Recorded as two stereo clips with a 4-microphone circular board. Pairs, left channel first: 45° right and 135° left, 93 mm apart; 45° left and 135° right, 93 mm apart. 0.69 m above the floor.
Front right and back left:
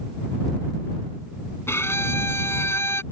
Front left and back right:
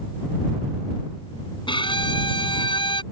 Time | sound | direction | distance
1.7 | a violin | 20° left | ?